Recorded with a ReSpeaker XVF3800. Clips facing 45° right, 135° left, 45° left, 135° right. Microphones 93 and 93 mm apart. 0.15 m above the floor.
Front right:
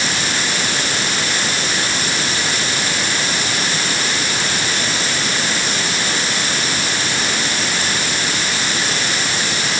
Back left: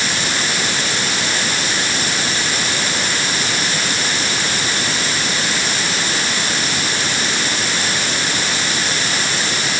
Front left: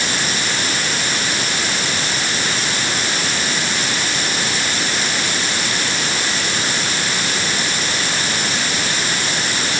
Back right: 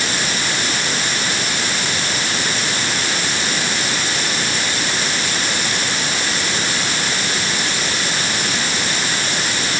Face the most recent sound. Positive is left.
No sound to turn to.